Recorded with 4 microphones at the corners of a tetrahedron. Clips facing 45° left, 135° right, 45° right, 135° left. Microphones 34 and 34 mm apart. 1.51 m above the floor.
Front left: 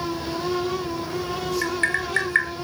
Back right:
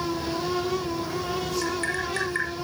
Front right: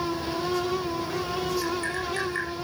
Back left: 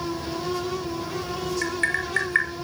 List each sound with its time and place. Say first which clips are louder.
1.6 s tapping: front left 4 dB, back left 3 dB; 95° left, 6 m